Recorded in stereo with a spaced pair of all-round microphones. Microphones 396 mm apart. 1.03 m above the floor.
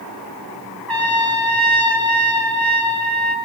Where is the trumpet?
65° right (ahead or behind), 2.5 m.